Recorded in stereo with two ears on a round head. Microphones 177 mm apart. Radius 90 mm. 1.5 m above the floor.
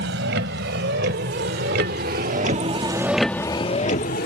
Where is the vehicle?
70° right (ahead or behind); by 4.3 s 50° left (ahead or behind).